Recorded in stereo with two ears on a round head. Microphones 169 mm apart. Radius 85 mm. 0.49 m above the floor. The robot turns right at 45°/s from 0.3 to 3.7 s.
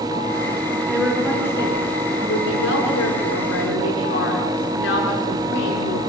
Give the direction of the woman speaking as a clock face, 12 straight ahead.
12 o'clock.